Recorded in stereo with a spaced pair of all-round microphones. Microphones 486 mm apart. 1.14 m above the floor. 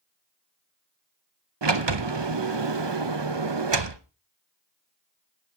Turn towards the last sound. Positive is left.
turn(degrees=-55)  # may be behind; listen again after turning